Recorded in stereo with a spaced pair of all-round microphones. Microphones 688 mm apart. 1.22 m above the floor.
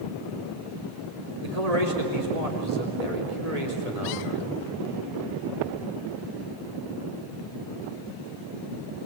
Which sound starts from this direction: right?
A man speaking, at 1.4 s.